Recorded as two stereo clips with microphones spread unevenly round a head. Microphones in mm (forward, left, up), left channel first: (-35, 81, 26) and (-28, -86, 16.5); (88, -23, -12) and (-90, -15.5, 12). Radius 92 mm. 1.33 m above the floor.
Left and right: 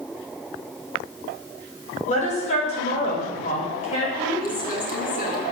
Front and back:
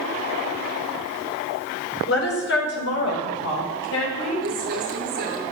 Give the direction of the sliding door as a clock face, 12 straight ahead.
I don't hear a sliding door.